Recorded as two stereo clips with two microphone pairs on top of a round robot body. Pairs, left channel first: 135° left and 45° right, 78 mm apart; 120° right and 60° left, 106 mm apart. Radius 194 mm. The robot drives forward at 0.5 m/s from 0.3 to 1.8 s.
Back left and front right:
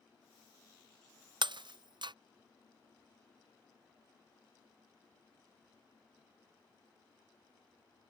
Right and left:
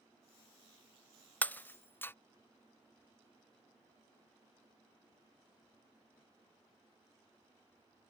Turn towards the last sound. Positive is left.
turn(degrees=-50)